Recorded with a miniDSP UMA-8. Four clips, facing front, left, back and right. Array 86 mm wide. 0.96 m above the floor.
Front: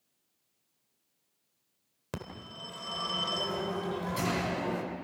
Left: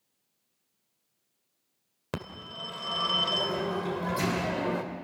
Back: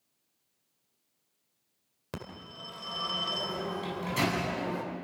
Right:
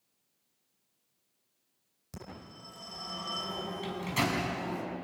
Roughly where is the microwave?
Behind right.